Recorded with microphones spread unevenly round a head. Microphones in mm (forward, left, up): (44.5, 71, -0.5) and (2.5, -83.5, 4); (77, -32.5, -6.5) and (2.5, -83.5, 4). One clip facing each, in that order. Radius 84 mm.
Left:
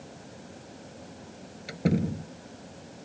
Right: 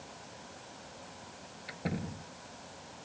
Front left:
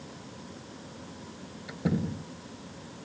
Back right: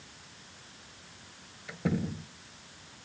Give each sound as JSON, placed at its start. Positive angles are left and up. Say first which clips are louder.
{"t": 0.0, "sound": "a fan", "louder": "left 5 dB, front left 10 dB", "azimuth_deg": 15}
{"t": 1.7, "sound": "a door slam", "louder": "left 11 dB, front left 2 dB", "azimuth_deg": 120}